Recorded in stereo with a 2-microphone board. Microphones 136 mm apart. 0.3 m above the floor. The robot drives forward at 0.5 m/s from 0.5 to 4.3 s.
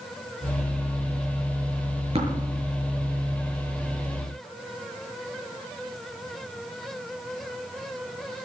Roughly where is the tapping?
Right.